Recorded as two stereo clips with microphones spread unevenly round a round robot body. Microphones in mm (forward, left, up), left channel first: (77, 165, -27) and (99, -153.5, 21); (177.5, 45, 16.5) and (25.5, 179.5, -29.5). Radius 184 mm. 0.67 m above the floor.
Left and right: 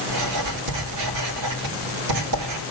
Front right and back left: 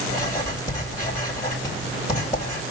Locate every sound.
0.1 s writing: 135° right, 2 m